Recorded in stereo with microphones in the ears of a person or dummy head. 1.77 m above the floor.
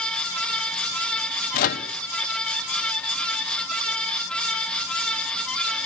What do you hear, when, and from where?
1.5 s a microwave: 55° left (ahead or behind), 0.9 m